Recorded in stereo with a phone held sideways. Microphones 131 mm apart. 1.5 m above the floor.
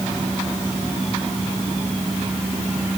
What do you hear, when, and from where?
Only background noise.